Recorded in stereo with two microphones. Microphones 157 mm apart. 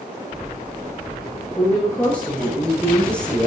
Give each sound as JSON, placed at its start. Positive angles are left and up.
{"t": 1.6, "sound": "a woman speaking", "side_deg": 10, "distance_m": 9.0}